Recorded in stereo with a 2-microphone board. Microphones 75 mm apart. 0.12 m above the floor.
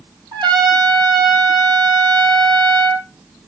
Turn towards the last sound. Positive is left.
turn(degrees=-75)  # may be behind; listen again after turning